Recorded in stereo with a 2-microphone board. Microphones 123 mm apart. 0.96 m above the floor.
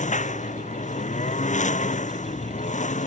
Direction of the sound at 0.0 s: 75° left (ahead or behind).